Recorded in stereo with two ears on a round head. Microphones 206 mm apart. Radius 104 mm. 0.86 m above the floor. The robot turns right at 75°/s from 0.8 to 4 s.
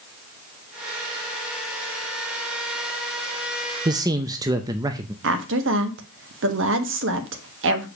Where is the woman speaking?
60° right (ahead or behind), 1.3 m.